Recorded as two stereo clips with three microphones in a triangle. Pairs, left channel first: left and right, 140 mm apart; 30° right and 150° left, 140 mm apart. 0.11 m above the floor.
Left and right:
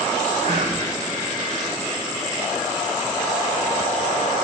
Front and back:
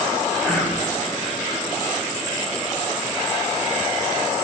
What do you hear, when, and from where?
0.4 s whispering: 105° right, 5 m